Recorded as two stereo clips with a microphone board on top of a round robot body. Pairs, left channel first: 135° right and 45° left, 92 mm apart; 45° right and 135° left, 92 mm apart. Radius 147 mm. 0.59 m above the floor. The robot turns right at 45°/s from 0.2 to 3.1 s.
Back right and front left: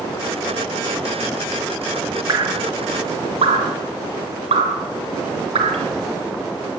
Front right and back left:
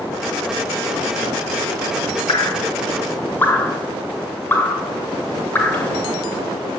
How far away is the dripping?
About 0.8 m.